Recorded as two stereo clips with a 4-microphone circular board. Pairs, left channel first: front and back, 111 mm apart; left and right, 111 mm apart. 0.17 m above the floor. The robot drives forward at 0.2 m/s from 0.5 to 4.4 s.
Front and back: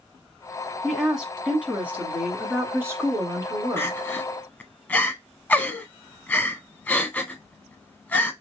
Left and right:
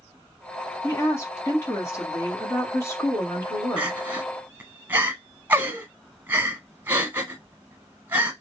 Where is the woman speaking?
95° left, 1.2 m; by 4.1 s 145° left, 1.4 m.